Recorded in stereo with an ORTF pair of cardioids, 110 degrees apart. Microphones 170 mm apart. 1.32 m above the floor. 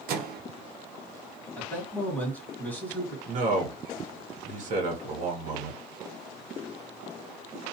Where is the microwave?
65° right, 0.6 m.